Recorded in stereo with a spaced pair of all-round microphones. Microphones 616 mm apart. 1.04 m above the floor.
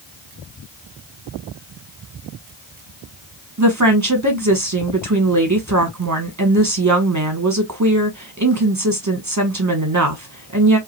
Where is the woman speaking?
30° right (ahead or behind), 1.1 m.